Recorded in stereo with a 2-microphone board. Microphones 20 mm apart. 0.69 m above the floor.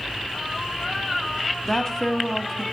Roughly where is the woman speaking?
Left.